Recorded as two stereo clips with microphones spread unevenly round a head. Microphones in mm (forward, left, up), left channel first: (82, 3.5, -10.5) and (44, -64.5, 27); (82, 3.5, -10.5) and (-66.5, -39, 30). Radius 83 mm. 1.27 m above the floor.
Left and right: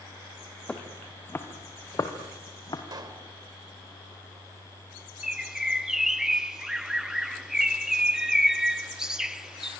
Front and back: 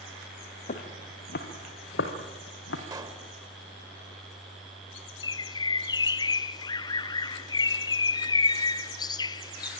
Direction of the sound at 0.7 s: 30° right.